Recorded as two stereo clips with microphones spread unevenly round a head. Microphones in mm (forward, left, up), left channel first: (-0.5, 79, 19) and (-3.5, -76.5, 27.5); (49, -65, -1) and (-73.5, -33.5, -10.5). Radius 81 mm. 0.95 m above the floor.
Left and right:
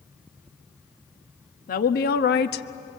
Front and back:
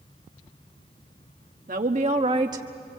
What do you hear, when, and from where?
1.7 s a woman speaking: 120° left, 1.2 m; by 3.0 s 80° left, 0.7 m